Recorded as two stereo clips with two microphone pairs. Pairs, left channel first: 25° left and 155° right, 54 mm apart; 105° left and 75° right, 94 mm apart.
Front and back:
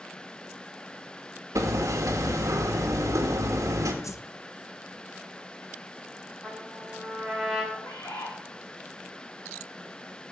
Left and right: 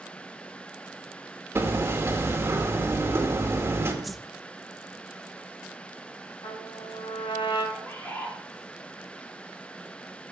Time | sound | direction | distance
1.6 | hammering | 145° right | 1.7 m
4.0 | a whoosh | 15° left | 0.5 m
6.4 | a trumpet | 120° left | 6.5 m
7.7 | a bird | 35° left | 4 m